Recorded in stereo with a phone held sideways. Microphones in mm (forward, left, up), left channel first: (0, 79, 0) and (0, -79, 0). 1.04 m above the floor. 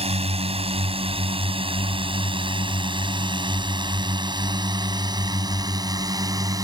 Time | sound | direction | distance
0.0 | a drone | 40° right (ahead or behind) | ?